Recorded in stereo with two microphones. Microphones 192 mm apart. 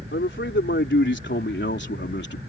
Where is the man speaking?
75° left (ahead or behind); by 2.4 s 65° left (ahead or behind).